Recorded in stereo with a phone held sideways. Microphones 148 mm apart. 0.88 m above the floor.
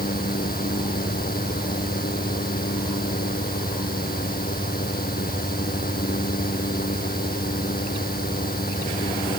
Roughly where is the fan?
Left.